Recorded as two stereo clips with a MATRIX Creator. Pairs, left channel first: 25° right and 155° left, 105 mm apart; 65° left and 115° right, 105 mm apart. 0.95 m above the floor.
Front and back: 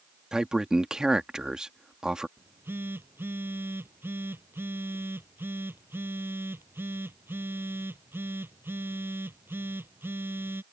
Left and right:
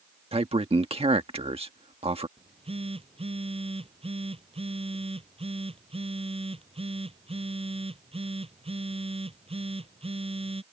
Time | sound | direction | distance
0.3 | a man speaking | 120° right | ?
2.4 | a phone buzzing | 135° right | ?